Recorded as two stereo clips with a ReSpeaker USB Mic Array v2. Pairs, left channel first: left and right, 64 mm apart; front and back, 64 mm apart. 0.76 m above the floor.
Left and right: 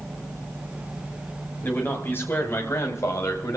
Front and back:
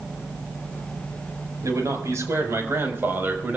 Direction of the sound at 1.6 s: 145° left.